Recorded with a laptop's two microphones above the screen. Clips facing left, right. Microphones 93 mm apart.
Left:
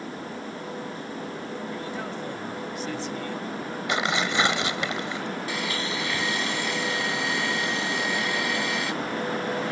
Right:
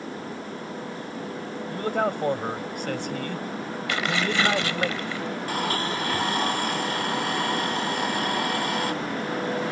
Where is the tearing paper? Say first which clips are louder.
Even; 20° left (ahead or behind).